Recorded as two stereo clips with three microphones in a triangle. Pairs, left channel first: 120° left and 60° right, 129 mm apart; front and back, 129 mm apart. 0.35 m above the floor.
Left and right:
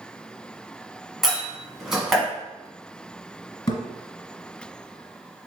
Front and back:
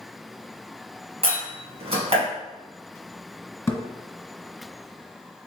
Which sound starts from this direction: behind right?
A door slam, at 1.2 s.